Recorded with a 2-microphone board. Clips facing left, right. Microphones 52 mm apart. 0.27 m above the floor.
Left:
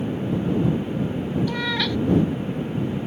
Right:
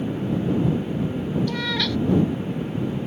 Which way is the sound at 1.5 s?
10° left (ahead or behind).